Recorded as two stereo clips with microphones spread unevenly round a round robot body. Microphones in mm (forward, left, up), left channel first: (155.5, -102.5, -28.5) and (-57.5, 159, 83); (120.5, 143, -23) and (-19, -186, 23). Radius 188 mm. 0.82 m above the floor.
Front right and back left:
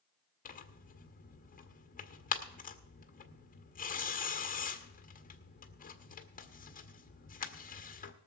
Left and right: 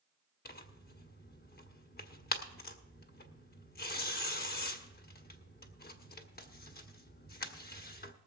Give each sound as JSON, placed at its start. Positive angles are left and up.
{"t": 0.5, "sound": "tearing paper", "azimuth_deg": 5, "distance_m": 1.4}